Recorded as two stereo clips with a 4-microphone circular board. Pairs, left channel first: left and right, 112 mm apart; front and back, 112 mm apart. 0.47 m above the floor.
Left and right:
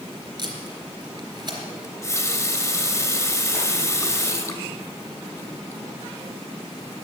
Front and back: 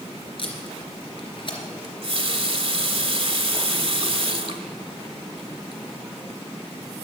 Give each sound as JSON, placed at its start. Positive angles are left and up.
{"t": 0.4, "sound": "tape being pulled", "azimuth_deg": -40, "distance_m": 3.0}
{"t": 1.8, "sound": "a running tap", "azimuth_deg": 150, "distance_m": 1.4}